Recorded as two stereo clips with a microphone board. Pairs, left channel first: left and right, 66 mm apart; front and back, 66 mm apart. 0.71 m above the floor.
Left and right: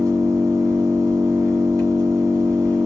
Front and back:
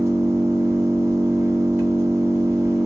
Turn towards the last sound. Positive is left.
turn(degrees=-130)